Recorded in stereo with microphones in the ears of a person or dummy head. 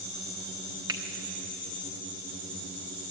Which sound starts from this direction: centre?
A finger snap, at 0.9 s.